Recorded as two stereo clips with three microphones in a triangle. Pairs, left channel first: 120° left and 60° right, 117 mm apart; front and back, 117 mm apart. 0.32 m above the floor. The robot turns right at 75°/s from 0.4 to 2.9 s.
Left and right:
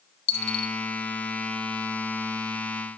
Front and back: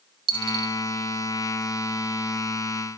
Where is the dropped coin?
140° left, 1.1 m; by 0.8 s 165° left, 1.1 m.